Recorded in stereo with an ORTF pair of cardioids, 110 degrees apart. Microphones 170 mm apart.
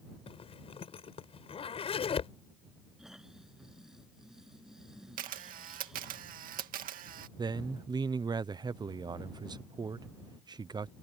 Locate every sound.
0.3 s a zipper: 35° left
3.0 s snoring: 5° right
5.2 s a camera shutter: 65° right
7.4 s a man speaking: 25° right